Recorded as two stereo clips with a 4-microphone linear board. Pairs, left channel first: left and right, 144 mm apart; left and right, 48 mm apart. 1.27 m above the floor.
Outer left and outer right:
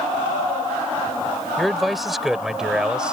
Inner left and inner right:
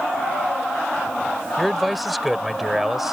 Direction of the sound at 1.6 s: Centre (ahead or behind).